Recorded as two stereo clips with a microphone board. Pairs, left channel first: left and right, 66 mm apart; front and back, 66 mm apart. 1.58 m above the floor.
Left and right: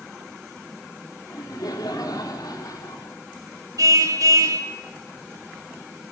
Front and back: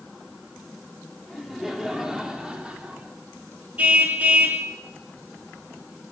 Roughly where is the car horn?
Behind right.